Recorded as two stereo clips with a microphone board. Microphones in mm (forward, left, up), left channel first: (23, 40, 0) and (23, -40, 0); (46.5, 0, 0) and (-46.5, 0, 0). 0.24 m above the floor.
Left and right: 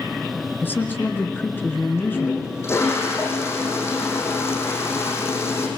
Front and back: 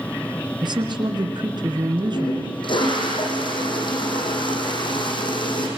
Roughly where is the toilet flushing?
Ahead left.